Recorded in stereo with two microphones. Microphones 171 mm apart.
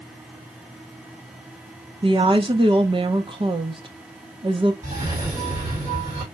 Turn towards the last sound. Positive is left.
turn(degrees=-10)  # may be behind; listen again after turning